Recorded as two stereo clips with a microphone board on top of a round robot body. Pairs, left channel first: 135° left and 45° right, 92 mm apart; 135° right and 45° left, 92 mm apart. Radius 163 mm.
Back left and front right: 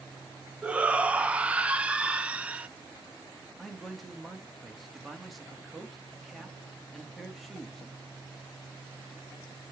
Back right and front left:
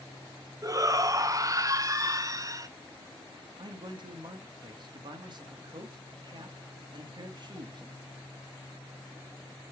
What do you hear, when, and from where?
0.6 s a shout: 25° left, 1.0 m
3.6 s a man speaking: 45° left, 1.6 m